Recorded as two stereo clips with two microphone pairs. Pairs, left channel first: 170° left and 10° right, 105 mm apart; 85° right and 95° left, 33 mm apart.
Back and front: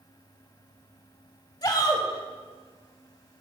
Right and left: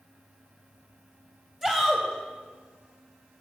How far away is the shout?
About 1.2 m.